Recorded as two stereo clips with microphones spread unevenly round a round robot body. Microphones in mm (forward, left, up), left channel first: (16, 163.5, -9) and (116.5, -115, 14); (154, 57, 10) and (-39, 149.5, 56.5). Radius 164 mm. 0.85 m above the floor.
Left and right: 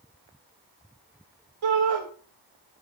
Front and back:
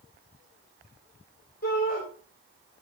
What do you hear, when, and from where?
1.6 s a shout: 85° right, 2.5 m